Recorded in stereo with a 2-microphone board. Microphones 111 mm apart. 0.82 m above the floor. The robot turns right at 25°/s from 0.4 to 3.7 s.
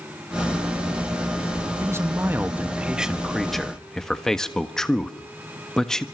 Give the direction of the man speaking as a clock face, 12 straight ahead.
1 o'clock.